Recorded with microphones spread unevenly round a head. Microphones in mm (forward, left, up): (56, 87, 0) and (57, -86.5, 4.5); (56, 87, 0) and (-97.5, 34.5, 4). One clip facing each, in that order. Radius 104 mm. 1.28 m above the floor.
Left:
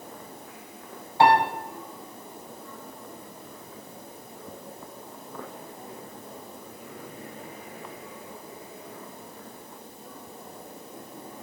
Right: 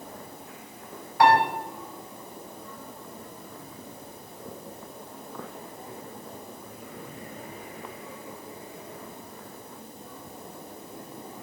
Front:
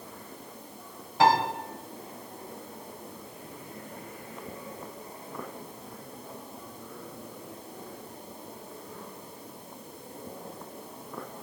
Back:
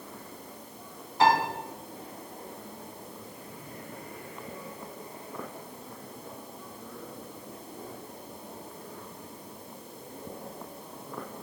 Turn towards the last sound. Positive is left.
turn(degrees=25)